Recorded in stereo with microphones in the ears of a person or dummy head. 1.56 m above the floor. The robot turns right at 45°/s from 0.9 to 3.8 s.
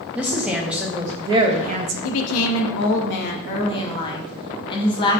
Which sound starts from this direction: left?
A woman speaking, at 2.0 s.